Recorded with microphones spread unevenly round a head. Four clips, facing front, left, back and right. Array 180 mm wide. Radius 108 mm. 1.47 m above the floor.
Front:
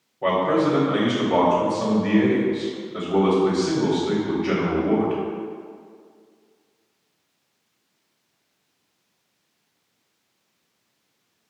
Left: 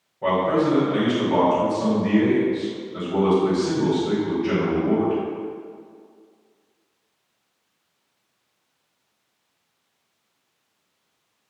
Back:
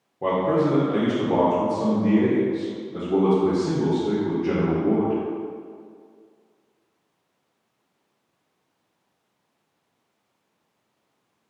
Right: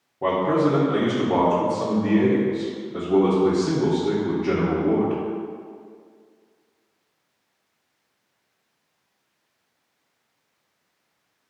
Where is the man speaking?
135° right, 1.5 m.